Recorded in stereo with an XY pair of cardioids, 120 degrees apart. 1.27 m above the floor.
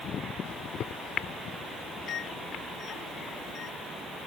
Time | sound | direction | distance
0.5 | a microwave | 60° left | ?